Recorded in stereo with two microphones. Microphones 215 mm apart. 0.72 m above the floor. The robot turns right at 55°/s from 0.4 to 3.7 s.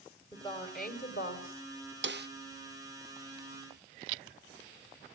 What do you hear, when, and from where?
0.3 s a woman speaking: 20° left, 3.5 m; by 1.9 s 105° left, 3.5 m
2.0 s a snare drum: 60° right (ahead or behind), 0.5 m; by 2.3 s 50° right (ahead or behind), 0.5 m